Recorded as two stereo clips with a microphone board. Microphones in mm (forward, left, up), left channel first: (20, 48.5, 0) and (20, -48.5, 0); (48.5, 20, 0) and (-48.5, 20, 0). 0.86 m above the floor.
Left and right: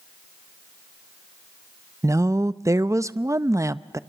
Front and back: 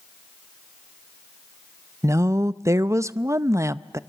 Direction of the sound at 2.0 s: 135° right.